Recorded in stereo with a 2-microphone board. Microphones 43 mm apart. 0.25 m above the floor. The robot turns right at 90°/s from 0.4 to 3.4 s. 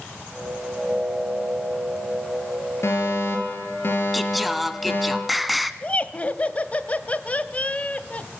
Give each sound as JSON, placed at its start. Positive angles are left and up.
{"t": 2.8, "sound": "a fire alarm", "azimuth_deg": 70, "distance_m": 7.0}
{"t": 4.1, "sound": "singing", "side_deg": 0, "distance_m": 1.1}
{"t": 5.8, "sound": "laughter", "side_deg": 30, "distance_m": 1.2}